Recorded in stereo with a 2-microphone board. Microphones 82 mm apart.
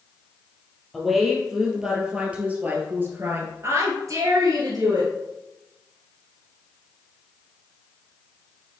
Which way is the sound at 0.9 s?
Centre (ahead or behind).